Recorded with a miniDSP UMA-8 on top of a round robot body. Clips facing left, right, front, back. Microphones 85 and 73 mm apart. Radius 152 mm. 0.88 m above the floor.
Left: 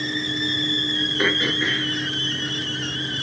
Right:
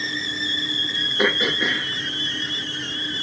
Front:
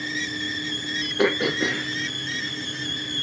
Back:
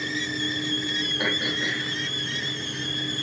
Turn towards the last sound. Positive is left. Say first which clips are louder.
# right 2 dB, front 8 dB
turn(degrees=-15)